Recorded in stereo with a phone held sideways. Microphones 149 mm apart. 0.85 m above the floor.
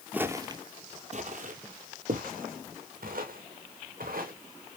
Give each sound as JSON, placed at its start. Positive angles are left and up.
{"t": 0.1, "sound": "footsteps", "side_deg": -10, "distance_m": 1.0}